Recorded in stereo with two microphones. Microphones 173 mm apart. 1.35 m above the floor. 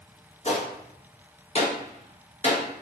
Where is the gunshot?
40° left (ahead or behind), 0.6 m.